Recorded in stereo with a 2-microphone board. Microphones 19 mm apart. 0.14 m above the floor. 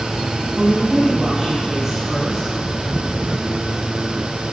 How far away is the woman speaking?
About 3 m.